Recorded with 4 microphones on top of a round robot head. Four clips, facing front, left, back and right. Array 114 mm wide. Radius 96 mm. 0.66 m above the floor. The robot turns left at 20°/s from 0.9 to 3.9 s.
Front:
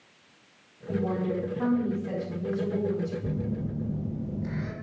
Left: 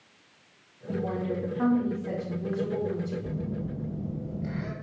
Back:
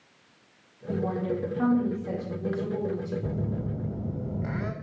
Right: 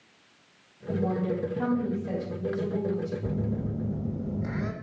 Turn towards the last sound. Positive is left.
turn(degrees=-155)